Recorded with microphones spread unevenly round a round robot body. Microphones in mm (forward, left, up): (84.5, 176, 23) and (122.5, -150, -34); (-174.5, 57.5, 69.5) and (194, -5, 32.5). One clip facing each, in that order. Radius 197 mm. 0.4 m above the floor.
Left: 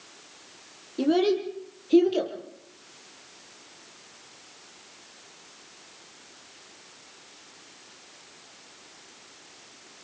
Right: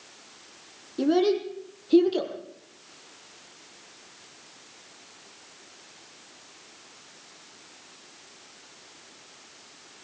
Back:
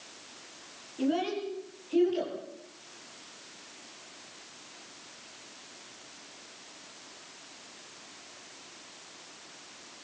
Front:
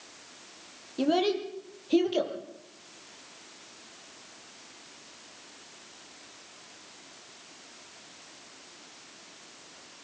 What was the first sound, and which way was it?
A child speaking, 5° left.